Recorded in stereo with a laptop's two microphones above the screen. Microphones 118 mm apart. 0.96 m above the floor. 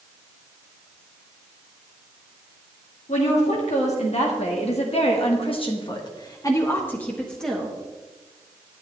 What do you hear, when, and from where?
3.1 s a woman speaking: 75° left (ahead or behind), 2.5 m; by 7.8 s centre (ahead or behind), 1.8 m